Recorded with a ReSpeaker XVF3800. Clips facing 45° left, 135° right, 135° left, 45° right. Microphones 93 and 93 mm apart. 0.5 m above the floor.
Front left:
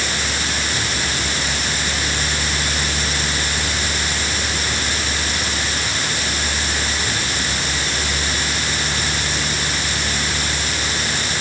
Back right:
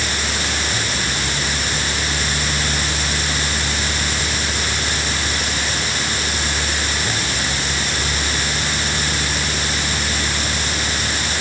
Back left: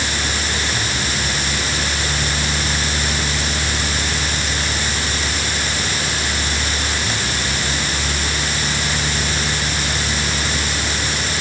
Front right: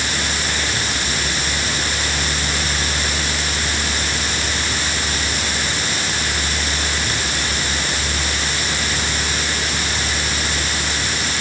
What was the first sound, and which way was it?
Only background noise.